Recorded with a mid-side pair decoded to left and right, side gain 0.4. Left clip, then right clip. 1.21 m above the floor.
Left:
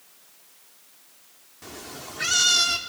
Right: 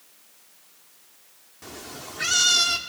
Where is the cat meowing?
5° right, 1.5 m.